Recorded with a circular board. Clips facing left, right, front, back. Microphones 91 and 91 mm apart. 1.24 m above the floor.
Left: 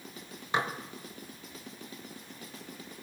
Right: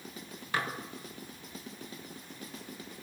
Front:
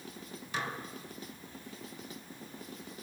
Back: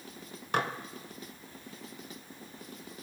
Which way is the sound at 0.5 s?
155° left.